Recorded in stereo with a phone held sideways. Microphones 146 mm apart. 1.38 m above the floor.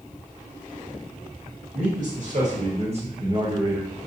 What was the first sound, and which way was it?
A man speaking, 65° right (ahead or behind).